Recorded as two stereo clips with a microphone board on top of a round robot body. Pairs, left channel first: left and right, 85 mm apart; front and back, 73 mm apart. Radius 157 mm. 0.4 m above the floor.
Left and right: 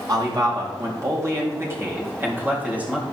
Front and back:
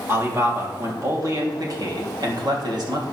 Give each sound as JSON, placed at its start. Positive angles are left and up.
{"t": 0.1, "sound": "a man speaking", "azimuth_deg": -125, "distance_m": 3.5}